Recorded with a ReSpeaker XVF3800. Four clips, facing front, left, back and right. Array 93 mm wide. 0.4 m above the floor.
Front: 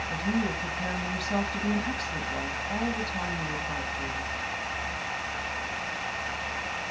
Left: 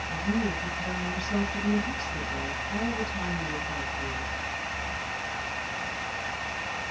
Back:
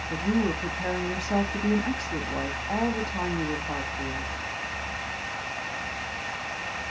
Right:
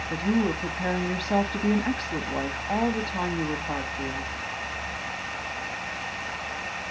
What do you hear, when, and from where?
0.1 s a woman speaking: 110° right, 2.5 m